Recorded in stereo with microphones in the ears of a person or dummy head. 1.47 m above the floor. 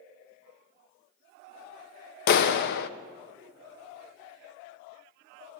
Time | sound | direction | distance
2.3 | a clap | 60° left (ahead or behind) | 0.6 m